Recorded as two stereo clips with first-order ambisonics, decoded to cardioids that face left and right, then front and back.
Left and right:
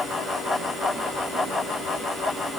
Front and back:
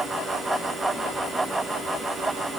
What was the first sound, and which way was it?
Only background noise.